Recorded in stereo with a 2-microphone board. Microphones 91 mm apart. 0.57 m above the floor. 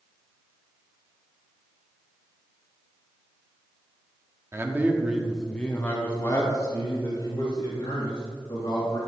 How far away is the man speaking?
About 0.9 m.